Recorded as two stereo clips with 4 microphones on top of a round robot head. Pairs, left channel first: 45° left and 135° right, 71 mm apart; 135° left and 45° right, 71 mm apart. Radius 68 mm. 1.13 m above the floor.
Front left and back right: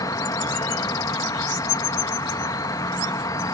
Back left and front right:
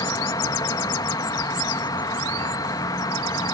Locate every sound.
0.0 s an insect: 95° left